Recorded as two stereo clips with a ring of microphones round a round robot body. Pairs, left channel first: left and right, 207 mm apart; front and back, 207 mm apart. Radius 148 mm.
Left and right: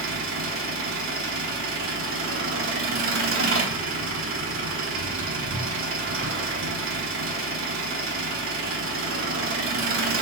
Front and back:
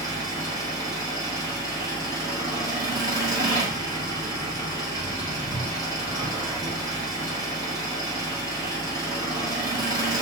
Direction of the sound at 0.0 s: 105° right.